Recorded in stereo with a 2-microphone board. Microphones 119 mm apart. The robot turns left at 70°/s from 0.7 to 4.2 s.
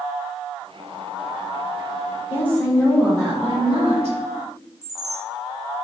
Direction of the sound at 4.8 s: 30° right (ahead or behind).